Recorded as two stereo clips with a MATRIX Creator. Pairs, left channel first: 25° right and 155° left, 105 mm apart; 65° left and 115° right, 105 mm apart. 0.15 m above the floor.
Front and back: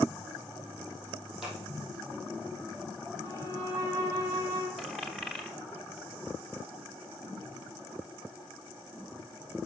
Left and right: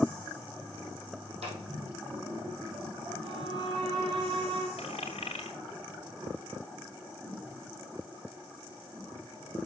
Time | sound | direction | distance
1.4 | scissors | 115° right | 3.5 m
3.2 | a violin | 145° right | 3.5 m
4.8 | a dropped coin | 65° left | 1.5 m